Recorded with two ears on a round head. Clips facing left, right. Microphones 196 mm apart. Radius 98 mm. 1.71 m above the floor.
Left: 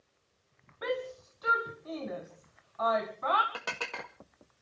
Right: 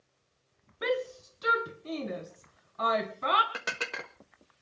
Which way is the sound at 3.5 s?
25° right (ahead or behind).